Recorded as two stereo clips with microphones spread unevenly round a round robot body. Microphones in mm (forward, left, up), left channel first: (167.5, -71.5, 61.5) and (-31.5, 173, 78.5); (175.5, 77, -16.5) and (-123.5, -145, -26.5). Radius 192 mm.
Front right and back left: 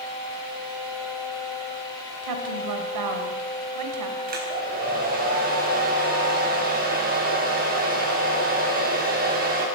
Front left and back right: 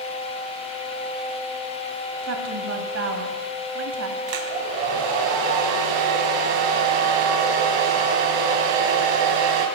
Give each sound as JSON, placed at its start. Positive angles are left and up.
{"t": 2.2, "sound": "a woman speaking", "azimuth_deg": 160, "distance_m": 2.5}
{"t": 4.3, "sound": "a hair dryer", "azimuth_deg": -165, "distance_m": 4.5}